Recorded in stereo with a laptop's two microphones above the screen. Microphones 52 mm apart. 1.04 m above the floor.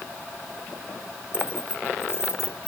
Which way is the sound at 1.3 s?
50° left (ahead or behind).